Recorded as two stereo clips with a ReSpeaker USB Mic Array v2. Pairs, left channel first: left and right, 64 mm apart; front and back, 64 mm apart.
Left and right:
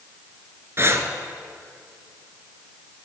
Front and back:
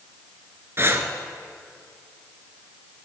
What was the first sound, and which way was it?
Breathing, 135° right.